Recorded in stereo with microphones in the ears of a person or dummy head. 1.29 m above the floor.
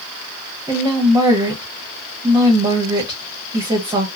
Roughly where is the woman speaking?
Right.